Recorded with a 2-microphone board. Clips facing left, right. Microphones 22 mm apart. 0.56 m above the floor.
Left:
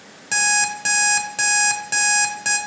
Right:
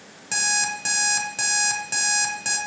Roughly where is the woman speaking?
No woman speaking in this recording.